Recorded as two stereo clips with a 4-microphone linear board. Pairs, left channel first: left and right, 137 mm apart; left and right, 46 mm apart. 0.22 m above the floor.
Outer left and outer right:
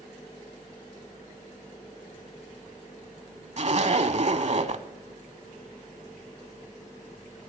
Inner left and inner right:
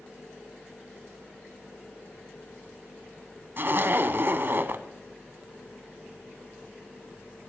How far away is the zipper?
About 0.8 m.